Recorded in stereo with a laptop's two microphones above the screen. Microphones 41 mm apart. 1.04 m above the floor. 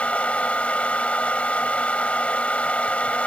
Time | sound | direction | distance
0.0 | a fan | 35° left (ahead or behind) | ?